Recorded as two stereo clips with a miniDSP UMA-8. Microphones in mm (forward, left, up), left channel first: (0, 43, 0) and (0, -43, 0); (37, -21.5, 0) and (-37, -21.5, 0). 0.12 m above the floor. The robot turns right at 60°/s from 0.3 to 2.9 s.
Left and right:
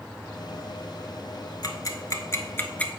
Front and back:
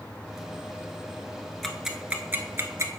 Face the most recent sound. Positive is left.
turn(degrees=160)